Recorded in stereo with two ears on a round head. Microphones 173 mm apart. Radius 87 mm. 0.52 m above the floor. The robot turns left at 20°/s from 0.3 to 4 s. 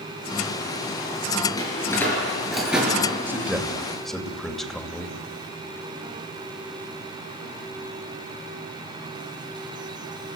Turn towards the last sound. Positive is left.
turn(degrees=0)  # may be behind; listen again after turning